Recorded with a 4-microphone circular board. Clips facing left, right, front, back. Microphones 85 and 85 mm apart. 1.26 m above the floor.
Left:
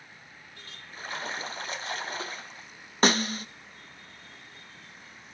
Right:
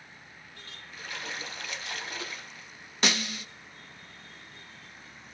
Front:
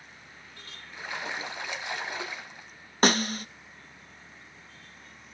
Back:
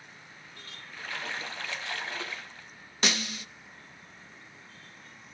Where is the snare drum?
40° left, 0.7 m.